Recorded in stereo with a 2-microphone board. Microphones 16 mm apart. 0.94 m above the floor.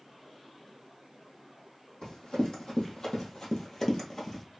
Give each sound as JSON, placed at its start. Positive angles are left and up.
{"t": 2.0, "sound": "running footsteps", "side_deg": 65, "distance_m": 2.0}